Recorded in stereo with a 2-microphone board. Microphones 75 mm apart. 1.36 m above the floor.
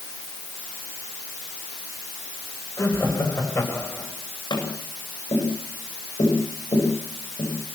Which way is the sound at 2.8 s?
40° left (ahead or behind).